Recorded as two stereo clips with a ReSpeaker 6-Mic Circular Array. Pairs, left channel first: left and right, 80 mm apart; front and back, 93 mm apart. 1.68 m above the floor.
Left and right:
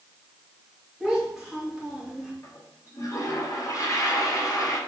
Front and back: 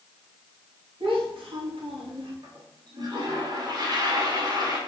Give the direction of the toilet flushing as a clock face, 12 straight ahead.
7 o'clock.